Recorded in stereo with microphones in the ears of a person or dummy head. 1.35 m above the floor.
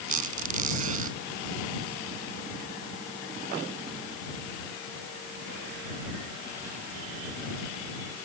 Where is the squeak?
50° right (ahead or behind).